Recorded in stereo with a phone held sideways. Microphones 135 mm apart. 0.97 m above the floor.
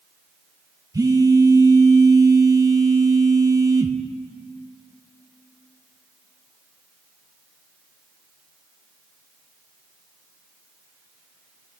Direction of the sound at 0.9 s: 25° right (ahead or behind).